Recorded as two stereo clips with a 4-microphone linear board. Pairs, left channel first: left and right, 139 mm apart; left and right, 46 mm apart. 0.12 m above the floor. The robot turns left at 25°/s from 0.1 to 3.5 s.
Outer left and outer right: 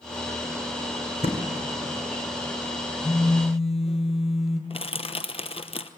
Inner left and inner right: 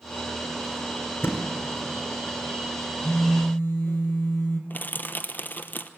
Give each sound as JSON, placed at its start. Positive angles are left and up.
{"t": 1.2, "sound": "a thud", "side_deg": 45, "distance_m": 3.0}
{"t": 3.0, "sound": "a phone buzzing", "side_deg": 35, "distance_m": 2.5}
{"t": 4.7, "sound": "crushing", "side_deg": 45, "distance_m": 0.8}